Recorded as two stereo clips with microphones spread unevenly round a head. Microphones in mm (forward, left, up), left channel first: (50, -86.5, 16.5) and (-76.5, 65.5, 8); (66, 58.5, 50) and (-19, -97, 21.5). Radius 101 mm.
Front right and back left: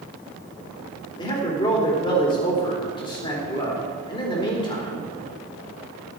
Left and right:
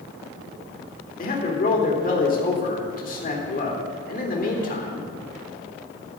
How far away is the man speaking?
About 3 m.